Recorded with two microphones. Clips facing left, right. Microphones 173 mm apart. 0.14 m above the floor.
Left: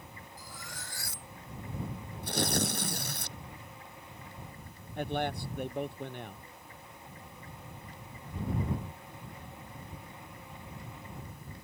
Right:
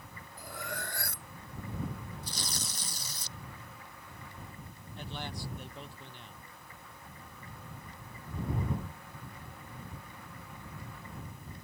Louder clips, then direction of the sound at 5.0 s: Left 9 dB; 60° left (ahead or behind).